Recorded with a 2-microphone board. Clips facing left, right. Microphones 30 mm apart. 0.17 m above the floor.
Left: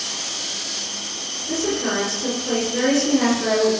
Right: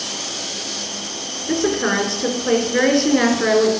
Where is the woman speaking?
50° right (ahead or behind), 3 m.